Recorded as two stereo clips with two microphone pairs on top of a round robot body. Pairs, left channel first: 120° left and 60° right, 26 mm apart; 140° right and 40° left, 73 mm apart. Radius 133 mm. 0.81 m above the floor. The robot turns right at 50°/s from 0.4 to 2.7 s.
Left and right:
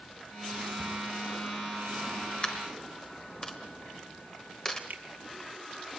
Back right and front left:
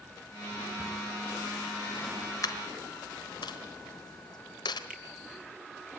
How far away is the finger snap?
About 3.5 m.